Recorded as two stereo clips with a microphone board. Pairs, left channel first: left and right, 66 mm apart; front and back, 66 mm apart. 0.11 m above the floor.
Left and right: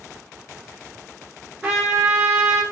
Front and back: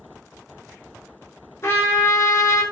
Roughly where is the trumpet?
Ahead.